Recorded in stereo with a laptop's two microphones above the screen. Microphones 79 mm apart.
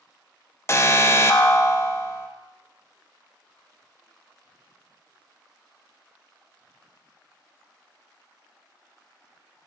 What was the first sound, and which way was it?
An alarm, 35° left (ahead or behind).